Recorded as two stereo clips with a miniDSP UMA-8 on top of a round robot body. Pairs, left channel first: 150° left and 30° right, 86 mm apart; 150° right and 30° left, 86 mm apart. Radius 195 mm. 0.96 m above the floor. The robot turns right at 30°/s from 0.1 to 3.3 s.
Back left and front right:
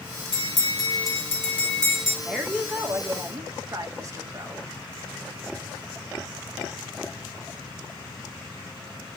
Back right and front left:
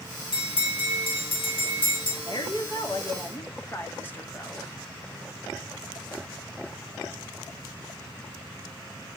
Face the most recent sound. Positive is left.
turn(degrees=-85)